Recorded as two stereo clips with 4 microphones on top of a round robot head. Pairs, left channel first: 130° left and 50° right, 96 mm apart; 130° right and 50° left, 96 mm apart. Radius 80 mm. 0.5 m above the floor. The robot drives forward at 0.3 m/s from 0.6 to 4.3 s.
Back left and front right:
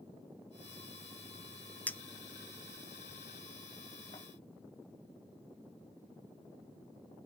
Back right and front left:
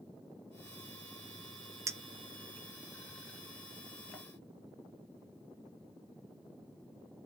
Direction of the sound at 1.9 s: 70° left.